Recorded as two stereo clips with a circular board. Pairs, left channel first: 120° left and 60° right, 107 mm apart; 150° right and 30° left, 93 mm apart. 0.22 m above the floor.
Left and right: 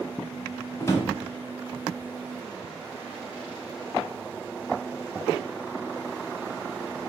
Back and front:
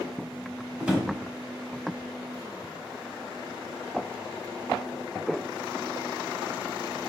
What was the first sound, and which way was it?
A drawer, 100° left.